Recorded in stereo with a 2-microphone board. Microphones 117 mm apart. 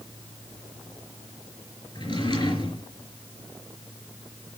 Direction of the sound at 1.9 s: 45° left (ahead or behind).